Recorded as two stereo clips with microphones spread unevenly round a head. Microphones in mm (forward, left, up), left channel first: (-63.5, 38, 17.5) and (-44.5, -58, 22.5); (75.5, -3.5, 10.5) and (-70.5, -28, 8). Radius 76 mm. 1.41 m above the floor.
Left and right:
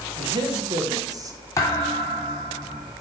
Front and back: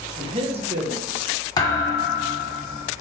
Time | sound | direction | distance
0.2 | a man speaking | 115° right | 1.8 m
1.6 | a thud | 50° left | 1.4 m